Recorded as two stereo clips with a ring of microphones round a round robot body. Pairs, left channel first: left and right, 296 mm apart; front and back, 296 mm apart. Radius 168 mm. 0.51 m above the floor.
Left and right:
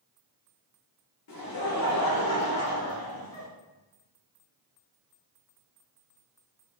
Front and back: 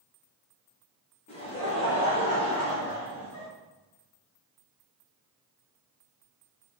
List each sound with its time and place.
1.3 s laughter: 70° left, 1.7 m